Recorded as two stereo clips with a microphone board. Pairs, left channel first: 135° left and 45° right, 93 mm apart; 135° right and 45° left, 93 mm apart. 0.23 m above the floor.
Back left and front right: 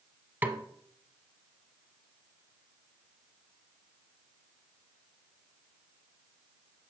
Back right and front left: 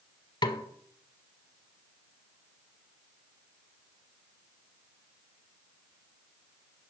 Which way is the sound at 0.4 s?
110° right.